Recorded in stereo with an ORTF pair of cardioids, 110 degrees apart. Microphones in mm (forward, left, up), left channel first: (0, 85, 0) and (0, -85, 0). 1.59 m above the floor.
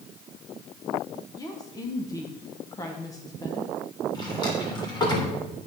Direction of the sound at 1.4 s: 20° left.